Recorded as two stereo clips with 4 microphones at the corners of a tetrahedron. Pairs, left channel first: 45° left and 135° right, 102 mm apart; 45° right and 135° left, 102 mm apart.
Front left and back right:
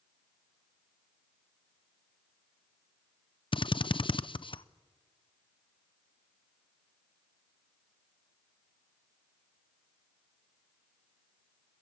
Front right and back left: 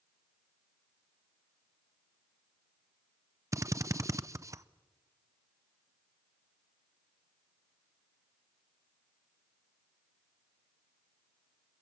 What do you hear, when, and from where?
3.5 s a drill: 75° left, 0.6 m